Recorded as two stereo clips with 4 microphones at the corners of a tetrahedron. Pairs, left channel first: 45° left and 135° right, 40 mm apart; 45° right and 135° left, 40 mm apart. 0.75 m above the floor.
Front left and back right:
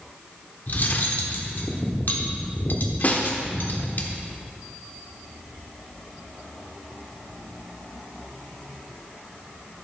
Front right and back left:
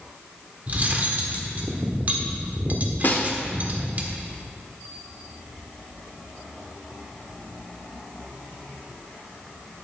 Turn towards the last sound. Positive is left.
turn(degrees=-5)